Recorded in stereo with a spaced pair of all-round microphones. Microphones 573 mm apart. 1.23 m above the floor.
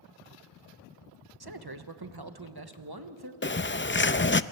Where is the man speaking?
40° right (ahead or behind), 1.1 m.